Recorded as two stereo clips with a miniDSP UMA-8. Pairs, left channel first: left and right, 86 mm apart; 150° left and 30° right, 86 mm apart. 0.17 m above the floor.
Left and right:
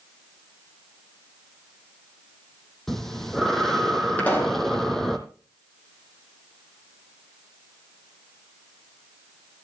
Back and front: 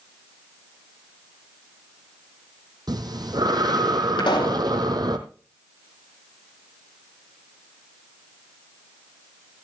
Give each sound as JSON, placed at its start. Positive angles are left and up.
{"t": 2.9, "sound": "breathing", "azimuth_deg": 5, "distance_m": 1.3}
{"t": 4.2, "sound": "a pop", "azimuth_deg": 160, "distance_m": 3.5}